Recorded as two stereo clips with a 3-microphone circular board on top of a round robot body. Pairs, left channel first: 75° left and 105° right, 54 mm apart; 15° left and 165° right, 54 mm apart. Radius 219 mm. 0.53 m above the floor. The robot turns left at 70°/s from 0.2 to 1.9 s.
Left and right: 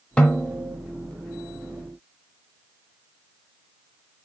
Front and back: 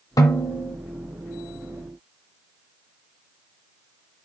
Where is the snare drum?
5° left, 0.9 m; by 0.8 s 35° right, 0.9 m.